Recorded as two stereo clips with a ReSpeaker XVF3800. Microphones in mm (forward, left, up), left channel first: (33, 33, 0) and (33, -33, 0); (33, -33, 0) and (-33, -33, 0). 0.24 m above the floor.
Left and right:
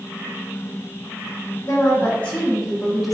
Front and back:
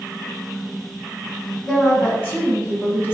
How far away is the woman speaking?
About 1.2 m.